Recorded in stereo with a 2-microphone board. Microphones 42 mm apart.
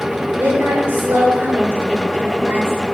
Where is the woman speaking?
65° right (ahead or behind), 2.5 m.